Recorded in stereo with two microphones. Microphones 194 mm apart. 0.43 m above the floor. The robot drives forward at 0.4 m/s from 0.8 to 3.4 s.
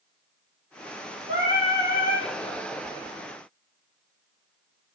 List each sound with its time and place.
1.3 s singing: 85° right, 2.5 m; by 2.3 s 80° right, 2.5 m